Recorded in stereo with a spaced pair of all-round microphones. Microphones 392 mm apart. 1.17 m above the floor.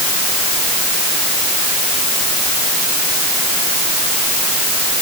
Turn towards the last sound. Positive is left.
No sound to turn to.